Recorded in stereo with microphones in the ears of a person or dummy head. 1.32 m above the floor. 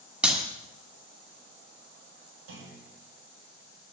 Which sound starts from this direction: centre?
A clap, at 0.2 s.